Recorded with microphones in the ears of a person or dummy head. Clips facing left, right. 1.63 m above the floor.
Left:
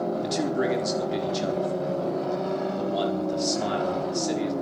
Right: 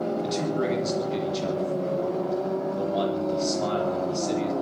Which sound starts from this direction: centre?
A man speaking, at 0.2 s.